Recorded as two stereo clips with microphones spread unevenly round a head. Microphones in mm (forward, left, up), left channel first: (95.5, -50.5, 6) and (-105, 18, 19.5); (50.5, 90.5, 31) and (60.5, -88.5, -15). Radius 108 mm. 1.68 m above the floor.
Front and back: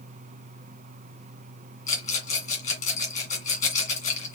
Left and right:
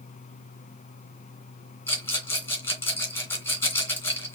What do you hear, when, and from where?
1.9 s a rattle: 35° left, 2.5 m